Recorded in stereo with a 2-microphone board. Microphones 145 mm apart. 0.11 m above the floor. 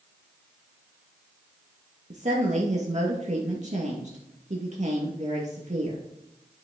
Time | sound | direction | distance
2.1 | a woman speaking | 55° right (ahead or behind) | 2 m